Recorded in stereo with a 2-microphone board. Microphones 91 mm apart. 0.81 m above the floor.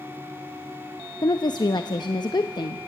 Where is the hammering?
No hammering in this recording.